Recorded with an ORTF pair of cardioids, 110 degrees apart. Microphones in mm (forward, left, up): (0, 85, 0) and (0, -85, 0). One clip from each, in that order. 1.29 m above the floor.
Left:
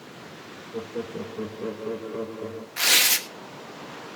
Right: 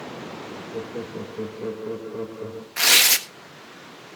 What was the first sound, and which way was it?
Laughter, 5° right.